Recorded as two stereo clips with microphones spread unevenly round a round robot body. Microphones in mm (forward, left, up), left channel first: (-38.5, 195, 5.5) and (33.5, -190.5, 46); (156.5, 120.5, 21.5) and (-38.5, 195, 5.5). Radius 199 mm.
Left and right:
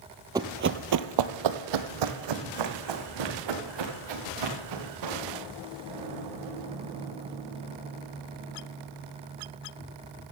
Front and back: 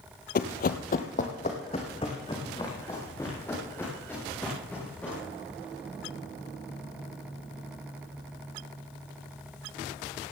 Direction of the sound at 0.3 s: 5° right.